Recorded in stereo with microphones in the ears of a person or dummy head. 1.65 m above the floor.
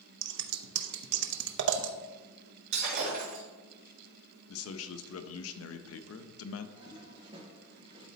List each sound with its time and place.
0.2 s scissors: 65° right (ahead or behind), 0.7 m
2.7 s breaking glass: 65° right (ahead or behind), 1.8 m
4.5 s a man speaking: 80° left, 0.7 m
6.8 s a toilet flushing: 35° right (ahead or behind), 2.5 m